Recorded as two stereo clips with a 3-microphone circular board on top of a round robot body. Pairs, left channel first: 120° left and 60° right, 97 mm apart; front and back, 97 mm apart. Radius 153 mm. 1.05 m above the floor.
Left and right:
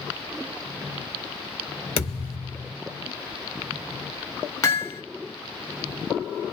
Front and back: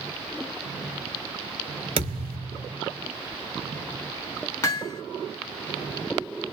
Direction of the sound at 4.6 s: 65° left.